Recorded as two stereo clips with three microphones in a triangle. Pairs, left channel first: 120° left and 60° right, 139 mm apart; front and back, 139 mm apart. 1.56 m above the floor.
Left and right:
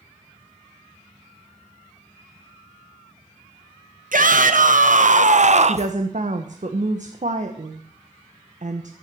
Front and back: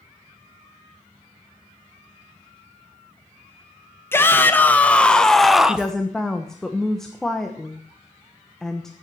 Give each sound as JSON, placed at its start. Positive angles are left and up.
{"t": 4.1, "sound": "a shout", "azimuth_deg": -75, "distance_m": 1.8}
{"t": 5.6, "sound": "a woman speaking", "azimuth_deg": -85, "distance_m": 1.3}